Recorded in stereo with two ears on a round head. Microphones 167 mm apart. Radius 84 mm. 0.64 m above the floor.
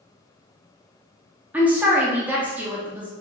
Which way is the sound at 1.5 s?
10° right (ahead or behind).